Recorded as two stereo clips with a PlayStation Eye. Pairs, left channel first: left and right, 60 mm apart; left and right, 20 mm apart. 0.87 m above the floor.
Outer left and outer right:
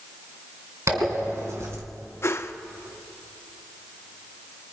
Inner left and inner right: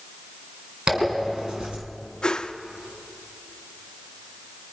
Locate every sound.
0.9 s a zipper: 50° right (ahead or behind), 3.5 m
2.2 s a whoosh: 45° left (ahead or behind), 0.7 m